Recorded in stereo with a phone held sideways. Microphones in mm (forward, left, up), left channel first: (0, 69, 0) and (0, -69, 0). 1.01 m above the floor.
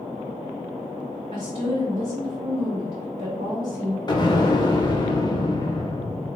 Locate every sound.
1.3 s a woman speaking: 45° right (ahead or behind), 1.4 m
4.1 s an explosion: 30° left (ahead or behind), 0.8 m